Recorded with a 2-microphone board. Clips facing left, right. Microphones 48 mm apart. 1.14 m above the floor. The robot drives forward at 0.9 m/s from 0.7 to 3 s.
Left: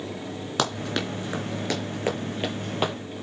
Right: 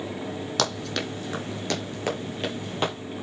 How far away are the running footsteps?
About 2.5 m.